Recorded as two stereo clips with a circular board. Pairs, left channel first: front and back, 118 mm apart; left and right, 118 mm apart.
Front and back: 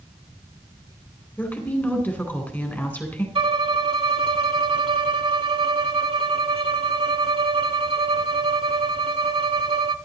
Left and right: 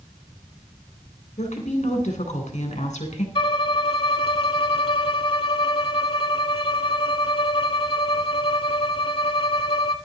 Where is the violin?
135° left, 0.8 m.